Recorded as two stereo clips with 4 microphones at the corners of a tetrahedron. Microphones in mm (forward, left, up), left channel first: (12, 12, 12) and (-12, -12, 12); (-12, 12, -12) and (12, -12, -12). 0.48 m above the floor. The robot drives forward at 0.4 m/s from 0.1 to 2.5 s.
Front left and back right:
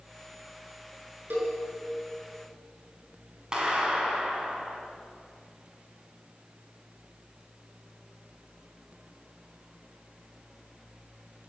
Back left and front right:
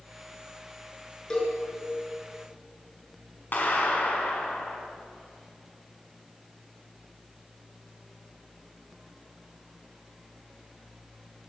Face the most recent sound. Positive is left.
turn(degrees=160)